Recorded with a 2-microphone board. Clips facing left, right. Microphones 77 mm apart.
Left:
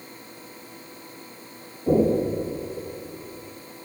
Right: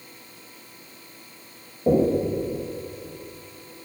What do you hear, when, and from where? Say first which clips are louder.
1.9 s knocking: even; 50° right (ahead or behind), 5.5 m